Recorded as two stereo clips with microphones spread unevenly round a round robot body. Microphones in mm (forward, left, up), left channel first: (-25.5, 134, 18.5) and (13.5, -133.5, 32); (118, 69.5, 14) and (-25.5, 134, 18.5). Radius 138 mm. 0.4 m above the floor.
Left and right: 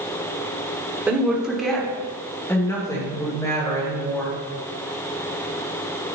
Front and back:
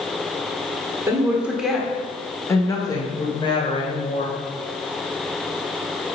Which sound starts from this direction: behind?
A woman speaking, at 1.1 s.